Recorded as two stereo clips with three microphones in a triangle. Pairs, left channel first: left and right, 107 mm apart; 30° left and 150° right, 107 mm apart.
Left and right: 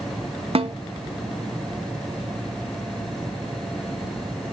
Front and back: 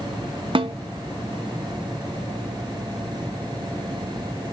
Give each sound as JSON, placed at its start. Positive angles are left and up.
{"t": 0.6, "sound": "a snare drum", "azimuth_deg": -115, "distance_m": 0.8}